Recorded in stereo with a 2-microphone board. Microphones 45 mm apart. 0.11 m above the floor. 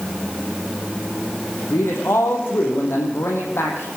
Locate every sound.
1.7 s a man speaking: 65° left (ahead or behind), 5.5 m